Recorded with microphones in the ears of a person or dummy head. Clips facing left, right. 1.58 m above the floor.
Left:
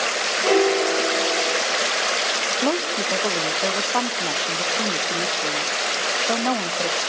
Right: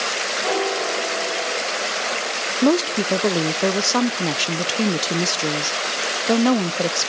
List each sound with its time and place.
0.4 s a piano: 30° left (ahead or behind), 1.2 m
2.6 s a woman speaking: 40° right (ahead or behind), 0.6 m